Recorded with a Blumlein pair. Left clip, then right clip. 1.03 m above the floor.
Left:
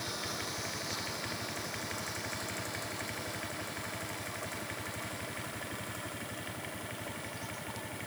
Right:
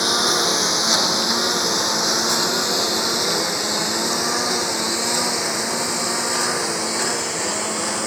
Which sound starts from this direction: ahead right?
A lawn mower, at 0.0 s.